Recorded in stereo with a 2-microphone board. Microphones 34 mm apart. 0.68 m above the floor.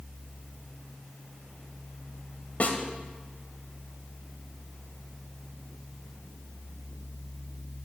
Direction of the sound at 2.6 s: 50° left (ahead or behind).